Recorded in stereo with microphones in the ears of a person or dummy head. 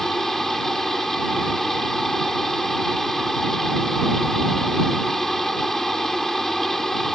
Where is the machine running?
Centre (ahead or behind).